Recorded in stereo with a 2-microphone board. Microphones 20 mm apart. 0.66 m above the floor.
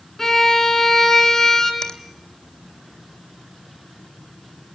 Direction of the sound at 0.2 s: 20° left (ahead or behind).